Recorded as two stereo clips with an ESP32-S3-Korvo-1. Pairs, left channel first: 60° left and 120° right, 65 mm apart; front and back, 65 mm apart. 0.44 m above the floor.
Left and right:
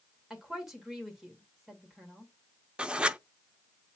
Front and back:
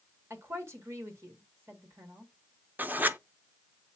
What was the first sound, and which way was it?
A woman speaking, 160° left.